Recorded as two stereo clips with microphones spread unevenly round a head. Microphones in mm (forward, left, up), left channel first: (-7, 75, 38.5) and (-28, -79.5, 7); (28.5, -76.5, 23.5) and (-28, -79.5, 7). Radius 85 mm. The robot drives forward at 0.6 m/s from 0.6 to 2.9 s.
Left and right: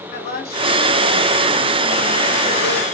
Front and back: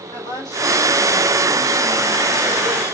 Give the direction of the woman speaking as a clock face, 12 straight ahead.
11 o'clock.